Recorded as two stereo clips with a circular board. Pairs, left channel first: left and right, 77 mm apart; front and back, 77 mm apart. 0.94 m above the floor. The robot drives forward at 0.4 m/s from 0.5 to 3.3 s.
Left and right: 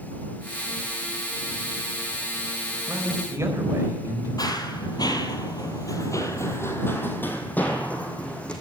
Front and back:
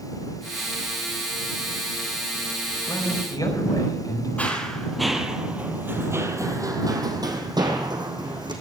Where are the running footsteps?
70° left, 1.8 m; by 8.5 s 170° left, 3 m.